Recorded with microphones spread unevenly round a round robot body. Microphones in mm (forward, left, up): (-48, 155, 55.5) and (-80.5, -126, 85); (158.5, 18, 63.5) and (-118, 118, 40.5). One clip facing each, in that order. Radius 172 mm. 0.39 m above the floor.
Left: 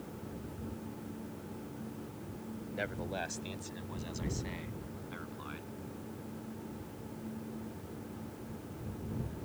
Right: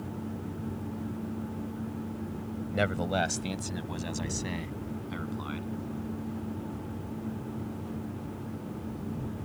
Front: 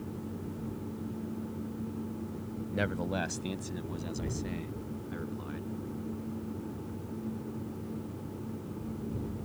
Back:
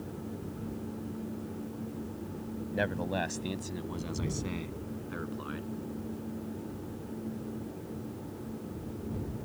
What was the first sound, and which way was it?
A man speaking, 95° right.